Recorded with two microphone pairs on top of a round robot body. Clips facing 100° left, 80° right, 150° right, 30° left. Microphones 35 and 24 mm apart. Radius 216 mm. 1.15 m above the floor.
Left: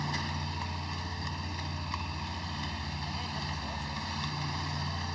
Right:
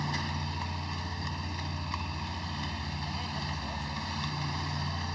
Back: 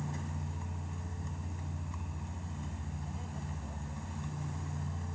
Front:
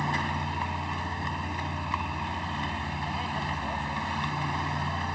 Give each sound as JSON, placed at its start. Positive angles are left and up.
{"t": 0.0, "sound": "a vehicle", "azimuth_deg": 15}